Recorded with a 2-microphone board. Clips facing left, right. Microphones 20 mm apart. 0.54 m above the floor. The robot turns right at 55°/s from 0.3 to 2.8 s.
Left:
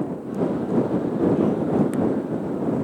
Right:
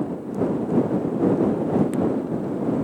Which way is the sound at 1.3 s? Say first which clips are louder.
Even; 65° left (ahead or behind).